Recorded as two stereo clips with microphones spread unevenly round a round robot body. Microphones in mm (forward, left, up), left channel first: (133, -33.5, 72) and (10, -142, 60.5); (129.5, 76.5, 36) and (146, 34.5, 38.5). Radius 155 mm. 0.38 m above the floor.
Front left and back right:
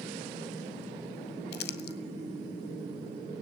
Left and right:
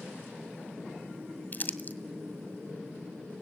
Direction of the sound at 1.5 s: 65° left.